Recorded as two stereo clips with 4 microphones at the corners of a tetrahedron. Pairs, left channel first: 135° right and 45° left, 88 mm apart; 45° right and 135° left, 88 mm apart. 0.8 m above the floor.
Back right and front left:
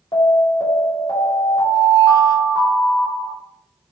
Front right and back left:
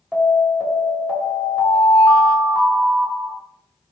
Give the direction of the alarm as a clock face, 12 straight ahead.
5 o'clock.